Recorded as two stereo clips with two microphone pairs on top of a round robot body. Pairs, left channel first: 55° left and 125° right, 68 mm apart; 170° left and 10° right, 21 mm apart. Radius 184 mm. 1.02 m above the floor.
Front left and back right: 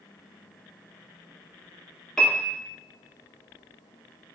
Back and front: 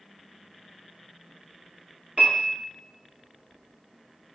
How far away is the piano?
About 0.8 m.